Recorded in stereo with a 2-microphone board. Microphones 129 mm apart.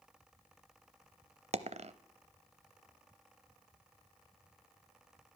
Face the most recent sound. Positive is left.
turn(degrees=-60)  # may be behind; listen again after turning